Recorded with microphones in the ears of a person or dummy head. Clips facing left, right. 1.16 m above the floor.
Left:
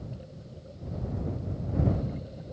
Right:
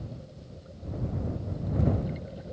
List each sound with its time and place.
Only background noise.